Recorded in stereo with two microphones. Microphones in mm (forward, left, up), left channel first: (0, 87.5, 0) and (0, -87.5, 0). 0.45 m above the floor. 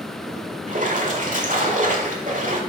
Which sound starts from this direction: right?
A splash, at 0.7 s.